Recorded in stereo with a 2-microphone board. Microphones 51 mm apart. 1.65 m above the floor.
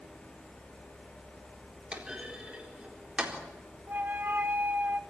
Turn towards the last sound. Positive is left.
turn(degrees=-45)  # may be behind; listen again after turning